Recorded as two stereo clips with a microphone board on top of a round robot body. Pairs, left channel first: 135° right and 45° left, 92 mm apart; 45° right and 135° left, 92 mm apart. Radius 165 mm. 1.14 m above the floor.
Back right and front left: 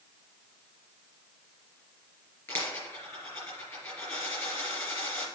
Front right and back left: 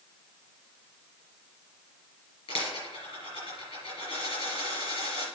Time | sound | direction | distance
2.5 | a dropped coin | 65° right | 4 m